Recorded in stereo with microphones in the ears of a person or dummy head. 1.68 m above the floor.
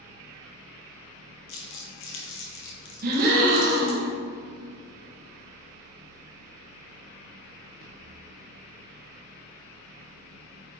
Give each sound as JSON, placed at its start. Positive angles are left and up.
{"t": 0.0, "sound": "a fan", "side_deg": -50, "distance_m": 1.0}
{"t": 1.5, "sound": "crumpling", "side_deg": 65, "distance_m": 0.9}
{"t": 3.0, "sound": "a gasp", "side_deg": -50, "distance_m": 1.2}